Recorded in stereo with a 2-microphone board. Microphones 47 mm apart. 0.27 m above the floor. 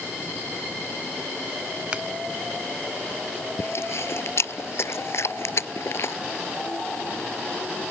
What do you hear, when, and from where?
1.9 s a finger snap: 25° right (ahead or behind)
3.6 s chewing: 65° left (ahead or behind)